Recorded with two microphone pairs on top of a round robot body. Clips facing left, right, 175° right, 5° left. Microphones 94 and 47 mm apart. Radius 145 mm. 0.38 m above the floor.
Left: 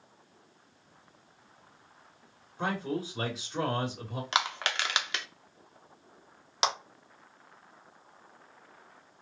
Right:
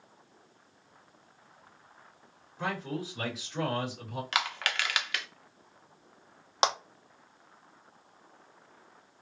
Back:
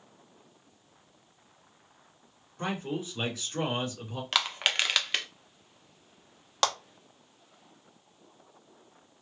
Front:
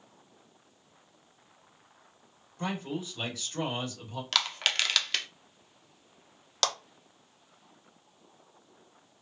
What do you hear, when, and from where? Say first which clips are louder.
2.6 s a man speaking: left 2 dB, back 1 dB; 140° left, 2.5 m
4.3 s crushing: left 2 dB, back 1 dB; 130° left, 1.0 m
6.6 s a clap: right 3 dB, back 3 dB; 125° right, 1.3 m